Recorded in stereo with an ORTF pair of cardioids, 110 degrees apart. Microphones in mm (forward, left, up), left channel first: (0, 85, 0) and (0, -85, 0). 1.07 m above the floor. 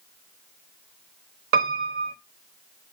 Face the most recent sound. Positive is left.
turn(degrees=-65)